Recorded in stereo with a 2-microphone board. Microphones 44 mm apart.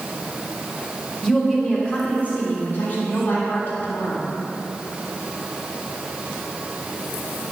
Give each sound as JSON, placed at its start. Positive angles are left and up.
{"t": 1.2, "sound": "a woman speaking", "side_deg": 15, "distance_m": 2.0}